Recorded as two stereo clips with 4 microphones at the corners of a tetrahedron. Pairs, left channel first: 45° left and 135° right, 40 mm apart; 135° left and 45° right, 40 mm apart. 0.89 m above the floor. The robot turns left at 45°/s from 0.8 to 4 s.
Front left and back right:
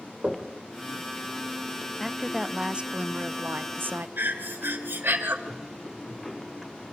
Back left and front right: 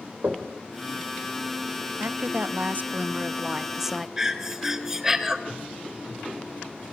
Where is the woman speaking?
40° right, 0.6 m; by 4.1 s 130° right, 0.6 m.